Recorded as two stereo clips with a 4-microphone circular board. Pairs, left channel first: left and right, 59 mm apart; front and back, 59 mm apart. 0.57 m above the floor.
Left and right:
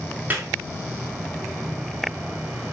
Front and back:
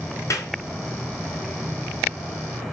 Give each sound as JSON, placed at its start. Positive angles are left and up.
{"t": 0.3, "sound": "a clap", "azimuth_deg": -30, "distance_m": 4.5}